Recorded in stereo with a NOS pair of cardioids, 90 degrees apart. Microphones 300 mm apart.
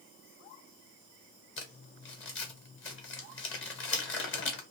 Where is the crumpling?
40° left, 1.1 m.